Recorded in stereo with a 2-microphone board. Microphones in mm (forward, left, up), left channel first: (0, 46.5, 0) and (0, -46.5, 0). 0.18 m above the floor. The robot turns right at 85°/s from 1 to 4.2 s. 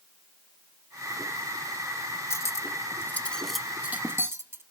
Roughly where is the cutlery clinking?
Left.